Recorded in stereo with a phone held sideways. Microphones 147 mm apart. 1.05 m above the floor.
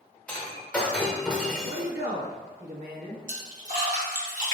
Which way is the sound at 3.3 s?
55° right (ahead or behind).